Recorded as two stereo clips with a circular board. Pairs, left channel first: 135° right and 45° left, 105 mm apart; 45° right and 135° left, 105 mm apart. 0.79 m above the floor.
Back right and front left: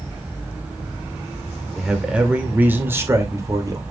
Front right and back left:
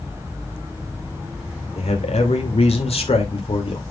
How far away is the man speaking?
About 2 m.